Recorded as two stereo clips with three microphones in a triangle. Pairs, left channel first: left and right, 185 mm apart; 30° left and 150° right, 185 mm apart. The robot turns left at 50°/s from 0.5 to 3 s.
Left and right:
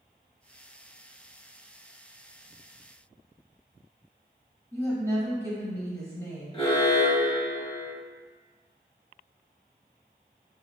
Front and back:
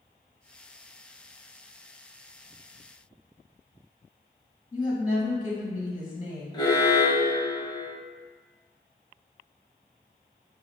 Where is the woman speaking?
30° left, 1.2 m.